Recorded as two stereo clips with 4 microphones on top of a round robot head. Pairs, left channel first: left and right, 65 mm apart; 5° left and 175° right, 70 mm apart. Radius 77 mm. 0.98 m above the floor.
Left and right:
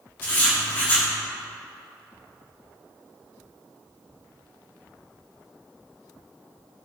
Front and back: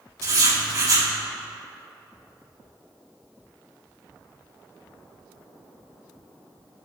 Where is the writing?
150° left, 4 m.